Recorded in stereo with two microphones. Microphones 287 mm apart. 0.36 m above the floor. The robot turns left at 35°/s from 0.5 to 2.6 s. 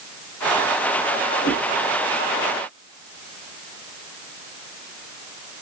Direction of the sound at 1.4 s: 70° left (ahead or behind).